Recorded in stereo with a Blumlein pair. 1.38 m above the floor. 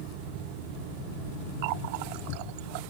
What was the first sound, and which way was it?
A running tap, 45° right.